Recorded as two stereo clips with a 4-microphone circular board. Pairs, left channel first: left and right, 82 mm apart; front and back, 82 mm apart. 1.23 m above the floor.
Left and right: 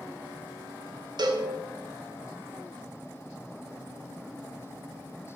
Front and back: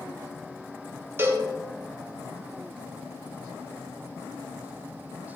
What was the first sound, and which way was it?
A cowbell, 120° right.